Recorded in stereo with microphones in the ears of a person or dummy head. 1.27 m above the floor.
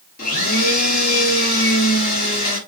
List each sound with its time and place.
0.2 s a blender: 50° left (ahead or behind), 3.5 m